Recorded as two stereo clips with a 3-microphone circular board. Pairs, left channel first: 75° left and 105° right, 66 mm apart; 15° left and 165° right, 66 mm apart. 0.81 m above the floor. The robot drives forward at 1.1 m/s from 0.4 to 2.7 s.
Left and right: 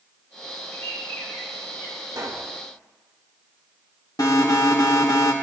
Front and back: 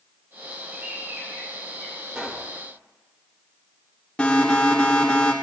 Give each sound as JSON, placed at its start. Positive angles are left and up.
{"t": 0.7, "sound": "a bird", "azimuth_deg": 130, "distance_m": 6.5}
{"t": 2.1, "sound": "a pop", "azimuth_deg": -90, "distance_m": 2.0}
{"t": 4.2, "sound": "an alarm", "azimuth_deg": 90, "distance_m": 2.0}